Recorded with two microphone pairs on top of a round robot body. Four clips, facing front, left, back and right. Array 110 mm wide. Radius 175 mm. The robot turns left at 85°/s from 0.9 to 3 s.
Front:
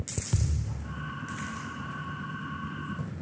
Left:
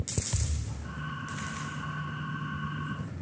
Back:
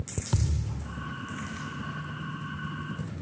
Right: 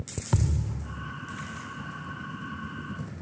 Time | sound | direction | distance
0.3 | a thud | 105° right | ?